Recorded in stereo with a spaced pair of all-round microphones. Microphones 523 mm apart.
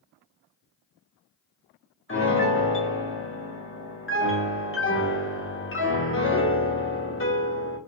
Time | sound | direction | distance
2.1 | a piano | 25° left (ahead or behind) | 0.6 m